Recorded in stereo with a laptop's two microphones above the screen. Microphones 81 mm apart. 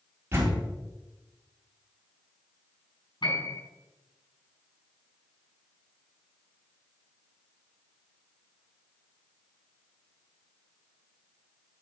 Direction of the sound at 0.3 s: 30° right (ahead or behind).